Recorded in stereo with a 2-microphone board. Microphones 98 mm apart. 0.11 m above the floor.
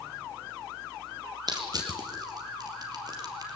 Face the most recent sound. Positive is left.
turn(degrees=-45)  # may be behind; listen again after turning